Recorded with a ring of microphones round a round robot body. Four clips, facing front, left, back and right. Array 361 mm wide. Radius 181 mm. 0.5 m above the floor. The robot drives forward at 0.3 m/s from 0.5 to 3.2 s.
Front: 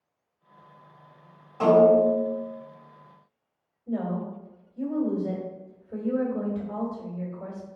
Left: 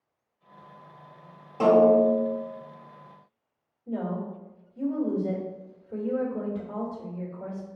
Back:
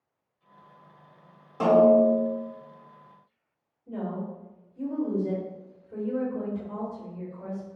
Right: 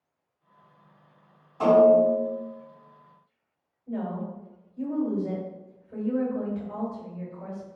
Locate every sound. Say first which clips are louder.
1.6 s a snare drum: right 1 dB, front 1 dB; 125° left, 1.0 m; by 2.3 s 135° left, 1.2 m
3.9 s a woman speaking: left 1 dB, front 4 dB; 85° left, 1.6 m